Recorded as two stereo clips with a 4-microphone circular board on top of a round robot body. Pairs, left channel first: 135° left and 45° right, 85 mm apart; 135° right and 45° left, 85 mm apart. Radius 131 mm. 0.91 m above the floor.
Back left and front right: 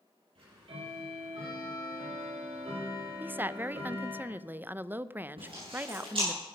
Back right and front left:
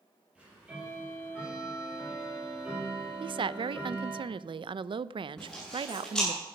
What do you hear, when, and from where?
0.3 s ticking: 35° right, 7.5 m
3.2 s a woman speaking: 25° left, 0.5 m
5.4 s chewing: 50° right, 8 m